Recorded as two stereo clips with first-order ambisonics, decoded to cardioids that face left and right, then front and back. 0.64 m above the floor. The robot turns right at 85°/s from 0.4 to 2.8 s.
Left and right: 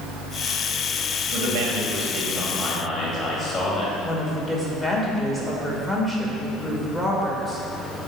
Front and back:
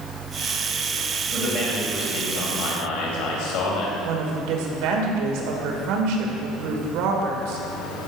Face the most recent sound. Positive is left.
turn(degrees=180)